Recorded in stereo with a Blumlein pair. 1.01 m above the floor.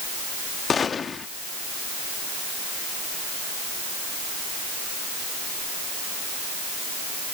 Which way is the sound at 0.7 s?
20° left.